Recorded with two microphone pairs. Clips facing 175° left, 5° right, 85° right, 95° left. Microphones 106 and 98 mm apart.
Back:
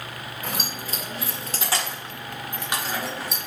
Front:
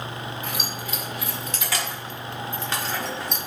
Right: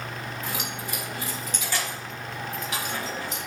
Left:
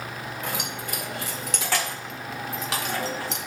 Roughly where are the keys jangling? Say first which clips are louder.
Front 1 dB, left 3 dB; behind left.